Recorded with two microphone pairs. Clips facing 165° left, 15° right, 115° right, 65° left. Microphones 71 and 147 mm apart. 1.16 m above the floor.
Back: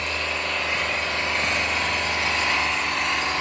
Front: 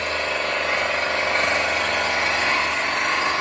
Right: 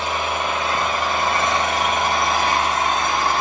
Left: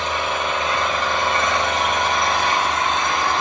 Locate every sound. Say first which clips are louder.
0.0 s an engine running: front 3 dB, even; 30° right, 6 m